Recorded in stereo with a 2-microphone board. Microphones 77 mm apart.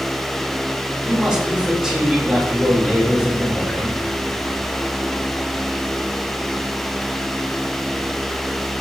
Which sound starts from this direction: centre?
A man speaking, at 1.1 s.